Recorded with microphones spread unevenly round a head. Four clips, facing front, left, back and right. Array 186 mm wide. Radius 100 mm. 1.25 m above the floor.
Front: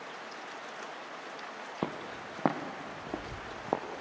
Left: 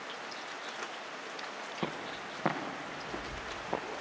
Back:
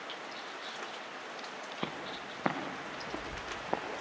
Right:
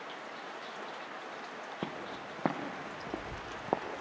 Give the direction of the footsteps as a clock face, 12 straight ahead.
12 o'clock.